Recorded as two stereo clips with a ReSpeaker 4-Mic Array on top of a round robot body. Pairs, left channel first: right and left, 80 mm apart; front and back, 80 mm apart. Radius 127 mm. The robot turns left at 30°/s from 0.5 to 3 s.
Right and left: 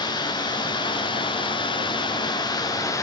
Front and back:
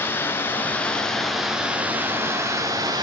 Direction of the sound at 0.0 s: 65° right.